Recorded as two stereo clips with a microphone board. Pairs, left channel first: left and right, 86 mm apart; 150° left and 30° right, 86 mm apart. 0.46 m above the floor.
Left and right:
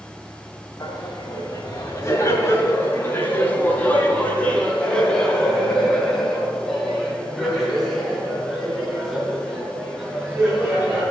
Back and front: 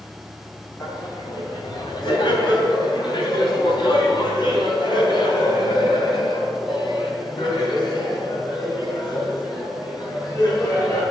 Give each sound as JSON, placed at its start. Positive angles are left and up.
{"t": 0.8, "sound": "laughter", "azimuth_deg": 120, "distance_m": 2.5}